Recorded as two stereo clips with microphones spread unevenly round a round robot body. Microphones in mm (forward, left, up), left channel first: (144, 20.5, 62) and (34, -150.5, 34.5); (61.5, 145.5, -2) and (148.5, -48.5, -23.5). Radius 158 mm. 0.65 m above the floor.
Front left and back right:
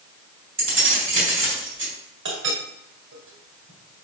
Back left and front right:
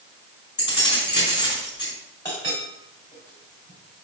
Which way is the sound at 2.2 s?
165° right.